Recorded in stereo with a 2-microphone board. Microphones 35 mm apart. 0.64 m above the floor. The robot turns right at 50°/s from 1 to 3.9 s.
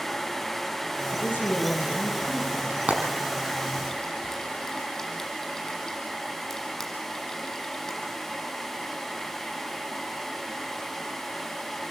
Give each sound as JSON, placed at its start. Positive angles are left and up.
{"t": 1.1, "sound": "a woman speaking", "azimuth_deg": 110, "distance_m": 9.0}
{"t": 2.7, "sound": "frying", "side_deg": -50, "distance_m": 6.5}